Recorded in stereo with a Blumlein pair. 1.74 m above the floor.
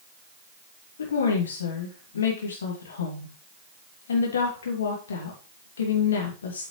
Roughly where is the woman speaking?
Ahead left.